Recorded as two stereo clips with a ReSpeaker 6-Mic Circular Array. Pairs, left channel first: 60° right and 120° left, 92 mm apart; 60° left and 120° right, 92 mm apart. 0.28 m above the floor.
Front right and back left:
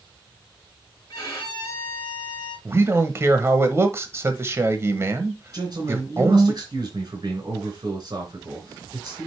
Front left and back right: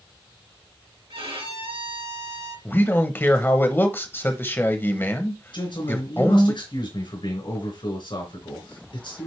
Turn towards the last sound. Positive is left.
turn(degrees=80)